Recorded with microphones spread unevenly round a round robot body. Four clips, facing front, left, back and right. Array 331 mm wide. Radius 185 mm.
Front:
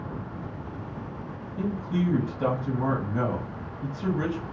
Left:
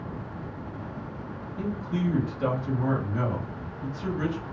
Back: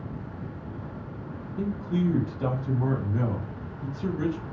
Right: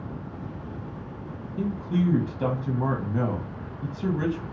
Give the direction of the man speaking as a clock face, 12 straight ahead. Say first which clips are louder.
Right 4 dB, even; 1 o'clock.